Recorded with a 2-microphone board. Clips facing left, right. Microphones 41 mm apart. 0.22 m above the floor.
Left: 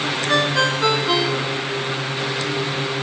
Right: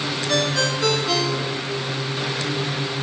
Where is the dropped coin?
I don't hear a dropped coin.